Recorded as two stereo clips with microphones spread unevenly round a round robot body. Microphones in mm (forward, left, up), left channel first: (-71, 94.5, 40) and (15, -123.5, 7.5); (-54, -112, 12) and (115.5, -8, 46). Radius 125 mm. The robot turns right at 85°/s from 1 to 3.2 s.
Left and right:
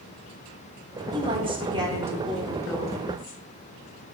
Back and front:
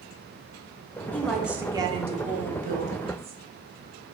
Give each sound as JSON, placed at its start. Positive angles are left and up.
{"t": 1.1, "sound": "a woman speaking", "azimuth_deg": -95, "distance_m": 0.8}